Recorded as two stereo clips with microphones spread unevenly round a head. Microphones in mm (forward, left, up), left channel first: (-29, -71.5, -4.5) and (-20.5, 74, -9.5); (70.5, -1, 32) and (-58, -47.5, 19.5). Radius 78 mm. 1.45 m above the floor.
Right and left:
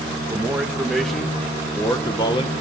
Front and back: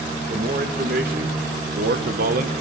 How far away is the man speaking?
About 2 m.